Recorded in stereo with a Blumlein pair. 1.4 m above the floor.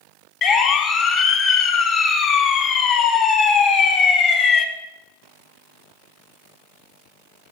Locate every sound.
0.4 s a siren: 25° left, 3 m